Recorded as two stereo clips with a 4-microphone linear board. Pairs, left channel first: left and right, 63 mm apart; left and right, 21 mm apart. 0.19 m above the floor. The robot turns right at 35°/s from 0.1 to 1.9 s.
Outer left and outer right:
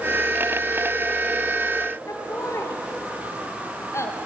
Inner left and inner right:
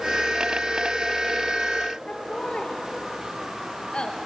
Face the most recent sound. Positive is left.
turn(degrees=45)  # may be behind; listen again after turning